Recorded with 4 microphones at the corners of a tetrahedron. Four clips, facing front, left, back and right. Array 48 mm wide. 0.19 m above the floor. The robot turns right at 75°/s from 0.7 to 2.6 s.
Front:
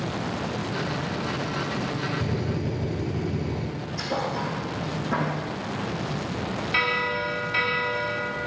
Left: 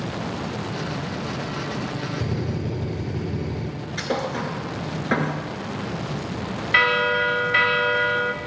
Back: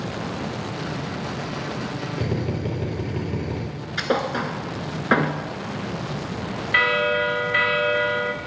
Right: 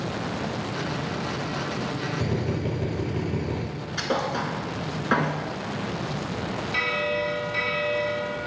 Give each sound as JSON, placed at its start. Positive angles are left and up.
{"t": 2.2, "sound": "a drill", "azimuth_deg": 180, "distance_m": 4.5}
{"t": 4.0, "sound": "a thud", "azimuth_deg": 180, "distance_m": 1.2}
{"t": 6.7, "sound": "a bell", "azimuth_deg": 115, "distance_m": 0.9}